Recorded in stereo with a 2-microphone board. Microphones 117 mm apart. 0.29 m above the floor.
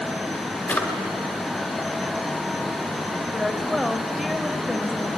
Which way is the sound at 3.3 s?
Centre (ahead or behind).